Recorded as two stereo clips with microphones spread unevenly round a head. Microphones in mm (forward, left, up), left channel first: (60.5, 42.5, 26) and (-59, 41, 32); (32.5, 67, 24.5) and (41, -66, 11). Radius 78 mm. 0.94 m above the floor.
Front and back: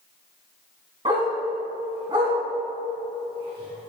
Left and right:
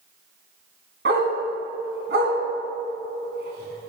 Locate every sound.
1.1 s a dog barking: 115° right, 3 m